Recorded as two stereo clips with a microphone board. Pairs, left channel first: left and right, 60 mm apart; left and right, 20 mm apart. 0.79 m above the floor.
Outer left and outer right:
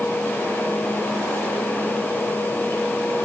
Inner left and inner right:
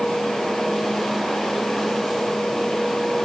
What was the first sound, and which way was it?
Only background noise.